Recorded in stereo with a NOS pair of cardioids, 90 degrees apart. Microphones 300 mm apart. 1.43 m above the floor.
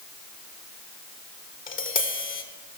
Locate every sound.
1.7 s tapping: 40° left, 1.5 m